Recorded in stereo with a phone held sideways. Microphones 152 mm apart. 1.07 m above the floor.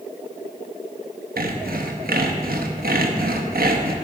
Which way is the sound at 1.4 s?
85° right.